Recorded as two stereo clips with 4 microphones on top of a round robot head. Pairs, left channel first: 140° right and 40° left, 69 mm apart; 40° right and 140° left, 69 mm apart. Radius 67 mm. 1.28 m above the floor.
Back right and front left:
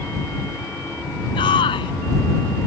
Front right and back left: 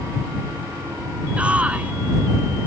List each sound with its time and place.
1.4 s a shout: 145° right